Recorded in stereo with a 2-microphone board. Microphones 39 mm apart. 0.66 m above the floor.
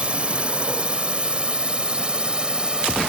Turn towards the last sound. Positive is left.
turn(degrees=-25)  # may be behind; listen again after turning